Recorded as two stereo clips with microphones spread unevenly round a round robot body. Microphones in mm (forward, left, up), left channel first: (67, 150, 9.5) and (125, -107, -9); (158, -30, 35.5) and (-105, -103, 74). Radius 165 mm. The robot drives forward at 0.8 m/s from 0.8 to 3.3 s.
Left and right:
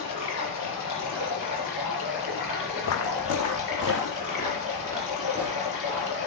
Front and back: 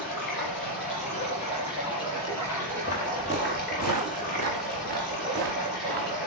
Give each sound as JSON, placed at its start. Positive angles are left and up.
{"t": 0.0, "sound": "running water", "azimuth_deg": 80, "distance_m": 4.5}
{"t": 2.8, "sound": "footsteps", "azimuth_deg": 80, "distance_m": 0.9}